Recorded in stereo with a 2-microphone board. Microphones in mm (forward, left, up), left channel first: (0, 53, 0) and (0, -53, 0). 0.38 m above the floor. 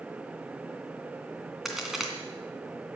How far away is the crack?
About 2.5 m.